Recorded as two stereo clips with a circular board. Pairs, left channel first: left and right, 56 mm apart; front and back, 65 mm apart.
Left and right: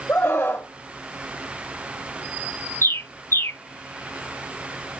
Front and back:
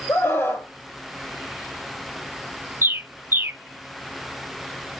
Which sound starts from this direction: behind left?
A bird, at 2.8 s.